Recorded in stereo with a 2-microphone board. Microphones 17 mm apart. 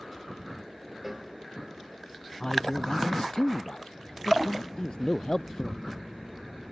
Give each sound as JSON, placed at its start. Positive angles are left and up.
{"t": 1.0, "sound": "a cowbell", "side_deg": -15}
{"t": 2.4, "sound": "a man speaking", "side_deg": 50}